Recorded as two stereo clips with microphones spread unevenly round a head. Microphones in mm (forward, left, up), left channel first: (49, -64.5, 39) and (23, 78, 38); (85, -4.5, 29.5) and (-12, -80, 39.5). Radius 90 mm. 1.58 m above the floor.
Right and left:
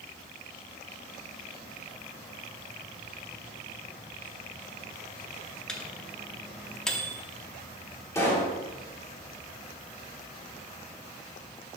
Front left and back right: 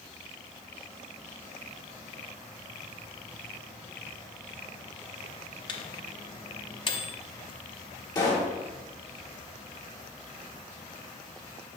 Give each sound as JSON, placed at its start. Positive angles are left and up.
{"t": 5.7, "sound": "a microwave", "azimuth_deg": 5, "distance_m": 0.7}
{"t": 8.2, "sound": "a pop", "azimuth_deg": -15, "distance_m": 1.8}